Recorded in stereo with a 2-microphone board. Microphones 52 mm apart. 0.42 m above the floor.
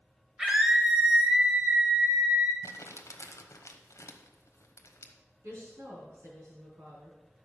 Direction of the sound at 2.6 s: 75° left (ahead or behind).